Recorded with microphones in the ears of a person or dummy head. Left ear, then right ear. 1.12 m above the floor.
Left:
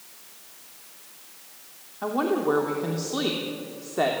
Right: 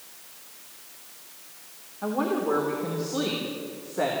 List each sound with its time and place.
2.0 s a woman speaking: 75° left (ahead or behind), 3 m